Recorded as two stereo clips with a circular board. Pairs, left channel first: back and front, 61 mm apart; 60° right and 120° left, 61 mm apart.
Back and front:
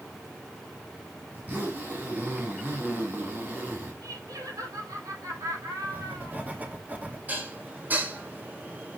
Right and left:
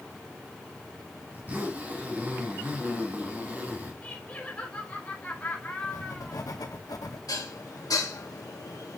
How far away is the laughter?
About 3 m.